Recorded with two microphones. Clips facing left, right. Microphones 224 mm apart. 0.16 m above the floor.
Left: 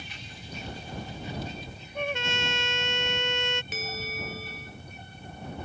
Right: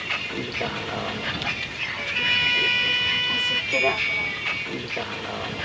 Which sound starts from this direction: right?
A vehicle, at 0.0 s.